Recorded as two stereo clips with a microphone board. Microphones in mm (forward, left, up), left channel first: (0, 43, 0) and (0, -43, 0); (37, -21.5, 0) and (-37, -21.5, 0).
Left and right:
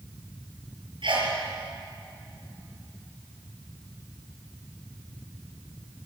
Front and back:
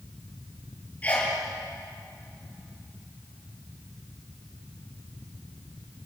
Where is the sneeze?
70° right, 7.5 m.